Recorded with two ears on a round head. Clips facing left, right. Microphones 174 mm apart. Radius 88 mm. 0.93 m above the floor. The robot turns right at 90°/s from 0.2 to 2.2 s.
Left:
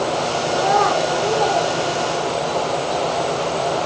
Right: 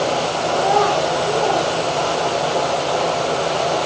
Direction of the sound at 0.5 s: 5° left (ahead or behind).